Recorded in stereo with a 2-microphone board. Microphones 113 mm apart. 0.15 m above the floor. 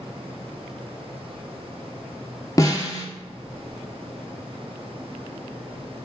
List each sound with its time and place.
2.6 s a snare drum: 30° left (ahead or behind), 0.7 m